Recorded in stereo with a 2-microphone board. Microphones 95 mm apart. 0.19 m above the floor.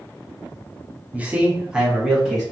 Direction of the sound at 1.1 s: 15° right (ahead or behind).